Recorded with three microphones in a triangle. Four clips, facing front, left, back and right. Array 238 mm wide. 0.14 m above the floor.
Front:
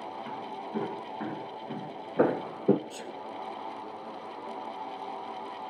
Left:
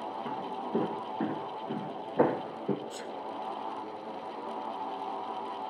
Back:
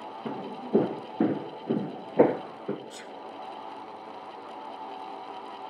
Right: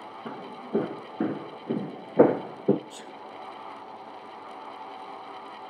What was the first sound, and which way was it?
Footsteps, 175° right.